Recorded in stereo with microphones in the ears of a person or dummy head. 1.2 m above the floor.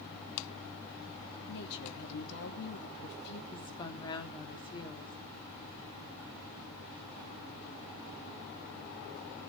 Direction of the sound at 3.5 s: 25° left (ahead or behind).